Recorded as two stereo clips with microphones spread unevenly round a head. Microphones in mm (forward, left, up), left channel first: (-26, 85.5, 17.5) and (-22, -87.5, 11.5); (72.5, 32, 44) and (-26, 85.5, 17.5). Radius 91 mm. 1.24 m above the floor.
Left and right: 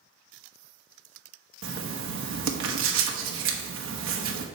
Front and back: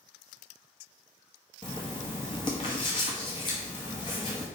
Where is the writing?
90° right, 1.0 m.